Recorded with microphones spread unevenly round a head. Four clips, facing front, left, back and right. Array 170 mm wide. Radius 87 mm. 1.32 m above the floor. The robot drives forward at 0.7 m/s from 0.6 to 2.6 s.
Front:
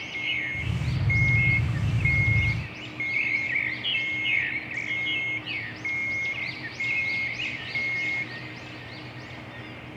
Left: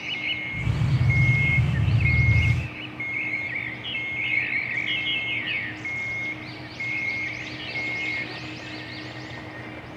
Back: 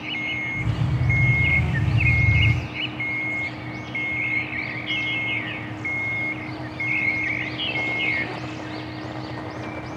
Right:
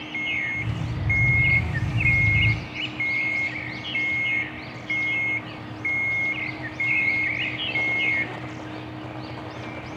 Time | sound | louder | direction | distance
0.1 | an alarm clock | right 4 dB, back 2 dB | 100° right | ?